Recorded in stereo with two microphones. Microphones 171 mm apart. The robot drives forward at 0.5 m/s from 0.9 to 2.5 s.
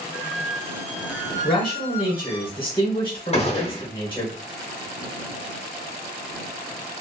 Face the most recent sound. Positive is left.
turn(degrees=35)  # may be behind; listen again after turning